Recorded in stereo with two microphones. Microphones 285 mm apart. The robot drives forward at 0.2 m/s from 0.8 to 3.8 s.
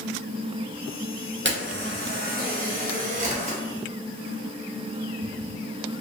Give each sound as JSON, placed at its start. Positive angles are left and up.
{"t": 1.4, "sound": "a camera shutter", "side_deg": -45, "distance_m": 0.6}